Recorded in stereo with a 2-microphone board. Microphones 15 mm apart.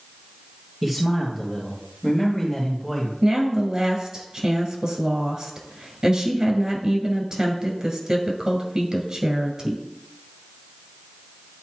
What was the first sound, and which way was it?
A man speaking, 15° right (ahead or behind).